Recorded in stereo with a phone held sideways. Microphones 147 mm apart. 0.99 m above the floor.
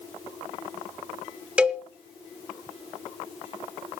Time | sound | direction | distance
1.6 | a cowbell | 5° right (ahead or behind) | 0.9 m